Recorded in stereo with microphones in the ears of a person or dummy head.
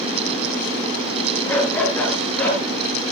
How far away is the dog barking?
About 7.5 m.